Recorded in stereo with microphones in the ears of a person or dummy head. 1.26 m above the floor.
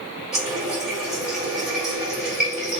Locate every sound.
0.3 s a running tap: centre (ahead or behind), 1.6 m